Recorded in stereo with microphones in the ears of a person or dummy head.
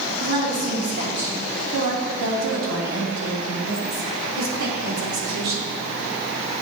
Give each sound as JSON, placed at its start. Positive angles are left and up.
{"t": 0.2, "sound": "a woman speaking", "side_deg": -45, "distance_m": 3.0}